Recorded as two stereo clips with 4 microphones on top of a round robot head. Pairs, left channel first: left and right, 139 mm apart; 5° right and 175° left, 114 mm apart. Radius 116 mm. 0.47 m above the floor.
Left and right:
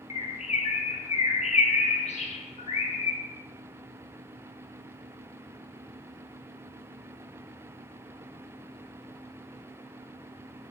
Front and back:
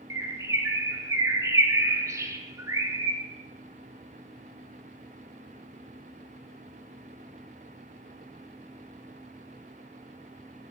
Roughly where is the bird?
Behind left.